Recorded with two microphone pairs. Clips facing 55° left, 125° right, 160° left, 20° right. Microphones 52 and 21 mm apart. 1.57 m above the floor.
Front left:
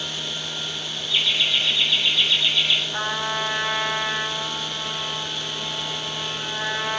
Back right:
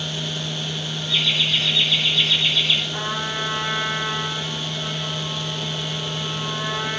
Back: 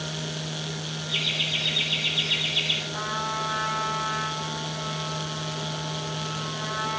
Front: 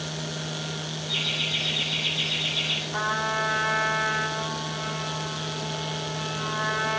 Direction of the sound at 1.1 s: 105° right.